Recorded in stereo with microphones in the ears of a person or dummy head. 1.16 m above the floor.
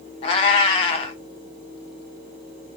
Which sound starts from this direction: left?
A cat meowing, at 0.2 s.